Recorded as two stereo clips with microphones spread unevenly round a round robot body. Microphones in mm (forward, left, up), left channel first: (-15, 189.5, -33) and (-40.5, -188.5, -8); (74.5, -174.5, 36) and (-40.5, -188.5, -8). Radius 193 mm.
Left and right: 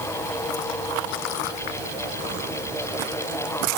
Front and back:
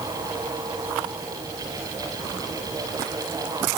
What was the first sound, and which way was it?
Only background noise.